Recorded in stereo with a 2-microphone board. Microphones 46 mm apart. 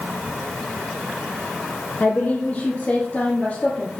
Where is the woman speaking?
55° left (ahead or behind), 3 m; by 4.0 s 40° left (ahead or behind), 2.5 m.